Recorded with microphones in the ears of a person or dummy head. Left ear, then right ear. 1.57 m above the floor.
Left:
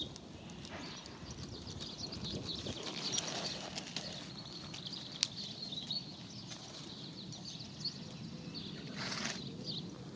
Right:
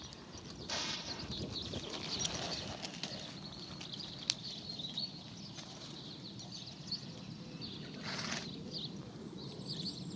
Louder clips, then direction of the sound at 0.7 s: Right 10 dB; 80° right.